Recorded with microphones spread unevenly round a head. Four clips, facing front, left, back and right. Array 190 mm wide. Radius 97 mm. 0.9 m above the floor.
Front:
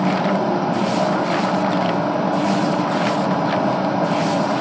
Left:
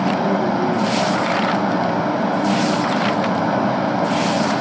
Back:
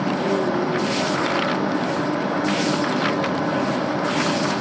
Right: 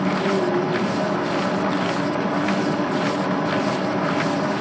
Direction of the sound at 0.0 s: 60° left.